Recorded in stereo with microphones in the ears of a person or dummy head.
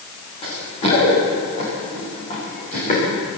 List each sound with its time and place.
0.4 s running footsteps: 30° left (ahead or behind), 8.5 m; by 3.0 s 35° left (ahead or behind), 11.5 m